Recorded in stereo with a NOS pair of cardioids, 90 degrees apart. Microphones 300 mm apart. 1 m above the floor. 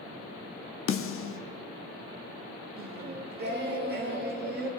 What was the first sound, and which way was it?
A snare drum, 45° left.